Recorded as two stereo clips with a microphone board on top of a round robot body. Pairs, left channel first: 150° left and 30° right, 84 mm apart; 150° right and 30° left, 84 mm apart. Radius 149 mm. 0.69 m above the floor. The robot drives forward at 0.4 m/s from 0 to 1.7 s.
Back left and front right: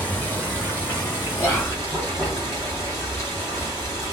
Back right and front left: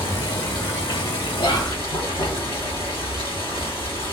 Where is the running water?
140° right, 1.7 m; by 4.1 s 150° right, 2 m.